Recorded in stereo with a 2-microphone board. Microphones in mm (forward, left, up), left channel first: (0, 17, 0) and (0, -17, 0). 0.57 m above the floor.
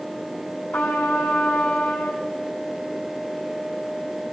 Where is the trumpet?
70° left (ahead or behind), 4 m.